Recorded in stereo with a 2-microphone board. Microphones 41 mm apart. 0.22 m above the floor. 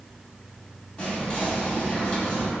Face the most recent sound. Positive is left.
turn(degrees=30)  # may be behind; listen again after turning